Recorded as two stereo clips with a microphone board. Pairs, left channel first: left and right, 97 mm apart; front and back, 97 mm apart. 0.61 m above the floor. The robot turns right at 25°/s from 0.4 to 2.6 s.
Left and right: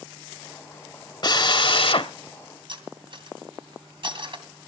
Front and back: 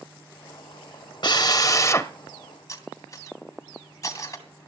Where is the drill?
45° left, 1.0 m; by 2.1 s 65° left, 1.0 m.